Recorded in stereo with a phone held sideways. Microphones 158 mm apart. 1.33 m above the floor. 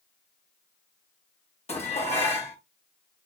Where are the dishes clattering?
40° left (ahead or behind), 0.9 m.